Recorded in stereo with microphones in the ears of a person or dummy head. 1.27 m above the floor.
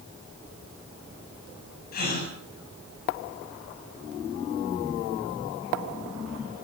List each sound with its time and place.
1.9 s a gasp: 50° left (ahead or behind), 7.5 m